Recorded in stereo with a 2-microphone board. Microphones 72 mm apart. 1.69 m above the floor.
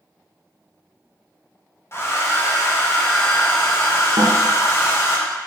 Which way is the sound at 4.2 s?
65° right (ahead or behind).